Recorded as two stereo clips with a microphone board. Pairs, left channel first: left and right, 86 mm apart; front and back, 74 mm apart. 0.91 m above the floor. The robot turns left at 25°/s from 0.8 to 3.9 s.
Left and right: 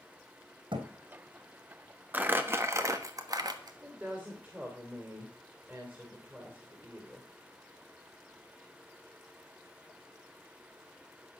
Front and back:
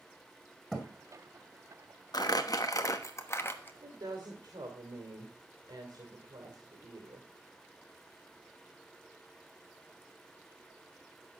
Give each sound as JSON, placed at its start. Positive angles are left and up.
{"t": 0.7, "sound": "a thud", "azimuth_deg": -85, "distance_m": 2.5}
{"t": 2.1, "sound": "crumpling", "azimuth_deg": -20, "distance_m": 1.1}
{"t": 3.8, "sound": "a woman speaking", "azimuth_deg": -155, "distance_m": 2.5}